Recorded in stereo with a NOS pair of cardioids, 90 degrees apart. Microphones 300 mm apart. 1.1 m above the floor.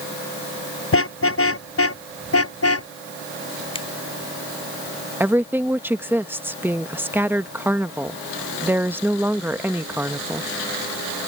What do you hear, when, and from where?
0.9 s a car horn: 45° left; by 2.9 s 50° left
3.8 s a finger snap: 20° left
5.2 s a woman speaking: 5° right